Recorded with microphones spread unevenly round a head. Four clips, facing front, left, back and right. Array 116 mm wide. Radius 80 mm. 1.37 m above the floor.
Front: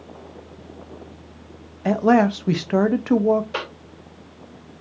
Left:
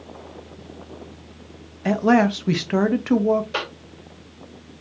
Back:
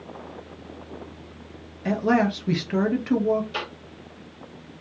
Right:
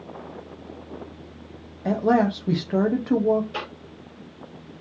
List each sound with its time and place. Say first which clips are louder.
1.9 s a man speaking: left 3 dB, front 5 dB; straight ahead, 0.7 m
3.5 s a cough: left 4 dB, front 3 dB; 20° left, 2.5 m